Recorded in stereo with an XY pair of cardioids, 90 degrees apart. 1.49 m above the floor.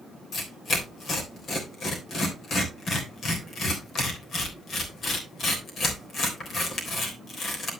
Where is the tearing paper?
65° left, 3.5 m.